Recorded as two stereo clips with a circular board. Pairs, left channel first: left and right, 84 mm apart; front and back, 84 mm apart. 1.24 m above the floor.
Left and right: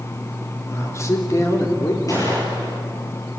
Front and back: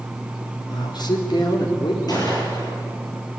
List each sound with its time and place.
0.7 s a man speaking: 35° left, 3 m
2.1 s a gunshot: 40° left, 8.5 m